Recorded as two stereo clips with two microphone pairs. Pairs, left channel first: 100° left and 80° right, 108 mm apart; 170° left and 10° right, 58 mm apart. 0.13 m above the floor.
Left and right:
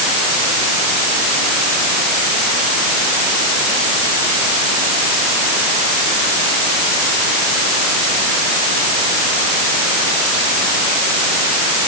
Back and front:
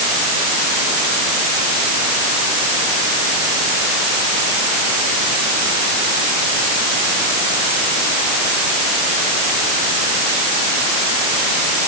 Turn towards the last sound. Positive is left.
No sound to turn to.